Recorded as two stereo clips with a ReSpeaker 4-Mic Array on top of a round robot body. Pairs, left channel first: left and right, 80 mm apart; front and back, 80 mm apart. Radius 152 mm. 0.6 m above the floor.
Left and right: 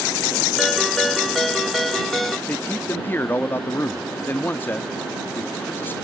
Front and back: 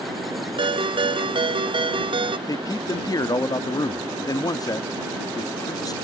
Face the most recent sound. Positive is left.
turn(degrees=30)